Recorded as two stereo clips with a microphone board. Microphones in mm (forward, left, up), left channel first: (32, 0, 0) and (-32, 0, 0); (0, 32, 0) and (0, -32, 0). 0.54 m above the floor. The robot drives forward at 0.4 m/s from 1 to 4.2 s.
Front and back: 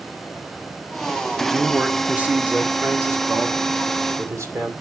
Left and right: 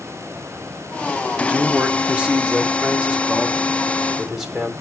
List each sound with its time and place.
1.4 s a man speaking: 105° right, 0.9 m; by 4.7 s 165° right, 1.5 m